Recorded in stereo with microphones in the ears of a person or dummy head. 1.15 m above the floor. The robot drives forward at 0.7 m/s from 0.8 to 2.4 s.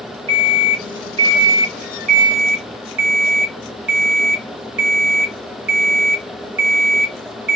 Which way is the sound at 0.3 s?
30° right (ahead or behind).